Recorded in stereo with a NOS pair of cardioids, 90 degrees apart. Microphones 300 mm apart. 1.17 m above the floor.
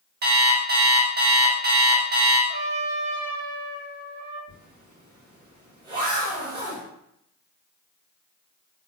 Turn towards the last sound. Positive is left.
turn(degrees=-70)